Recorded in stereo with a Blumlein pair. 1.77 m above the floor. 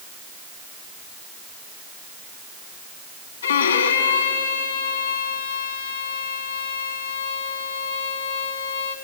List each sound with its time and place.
3.4 s a violin: 70° left, 1.5 m